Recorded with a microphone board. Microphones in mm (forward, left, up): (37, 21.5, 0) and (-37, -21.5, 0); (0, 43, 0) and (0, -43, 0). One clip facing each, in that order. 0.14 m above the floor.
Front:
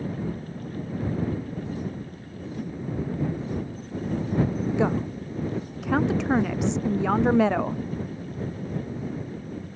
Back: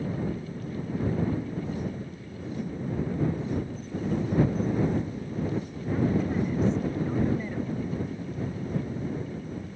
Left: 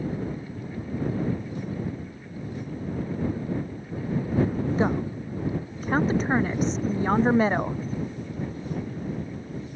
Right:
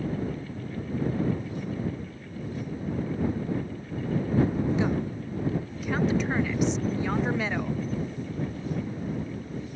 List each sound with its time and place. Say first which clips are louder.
4.8 s a woman speaking: front 3 dB, left 2 dB; 35° left